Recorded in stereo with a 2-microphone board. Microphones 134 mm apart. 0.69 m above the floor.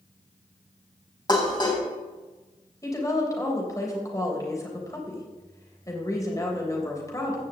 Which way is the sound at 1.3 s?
30° left (ahead or behind).